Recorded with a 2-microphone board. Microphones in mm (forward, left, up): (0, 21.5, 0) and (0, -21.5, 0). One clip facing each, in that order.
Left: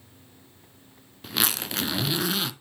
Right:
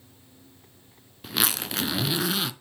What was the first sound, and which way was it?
A zipper, centre (ahead or behind).